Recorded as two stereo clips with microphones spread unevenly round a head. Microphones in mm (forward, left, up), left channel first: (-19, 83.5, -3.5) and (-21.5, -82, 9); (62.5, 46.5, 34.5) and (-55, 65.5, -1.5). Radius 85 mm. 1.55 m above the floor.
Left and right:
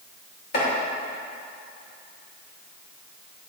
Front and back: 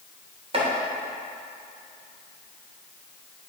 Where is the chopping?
125° left, 2.5 m.